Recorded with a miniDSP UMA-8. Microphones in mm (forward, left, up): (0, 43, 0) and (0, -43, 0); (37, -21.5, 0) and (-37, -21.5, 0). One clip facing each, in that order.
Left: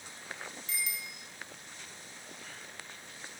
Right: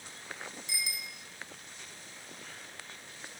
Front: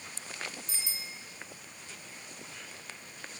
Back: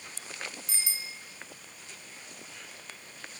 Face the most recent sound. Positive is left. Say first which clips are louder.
# left 2 dB, back 3 dB
turn(degrees=-170)